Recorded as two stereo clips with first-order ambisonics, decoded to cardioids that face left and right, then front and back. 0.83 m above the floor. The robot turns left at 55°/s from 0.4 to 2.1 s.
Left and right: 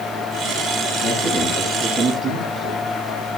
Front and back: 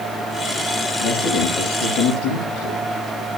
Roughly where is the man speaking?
Ahead left.